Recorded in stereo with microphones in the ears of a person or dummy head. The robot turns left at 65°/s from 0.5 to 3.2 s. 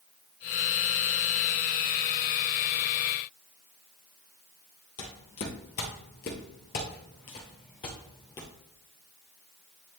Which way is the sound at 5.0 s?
55° left (ahead or behind).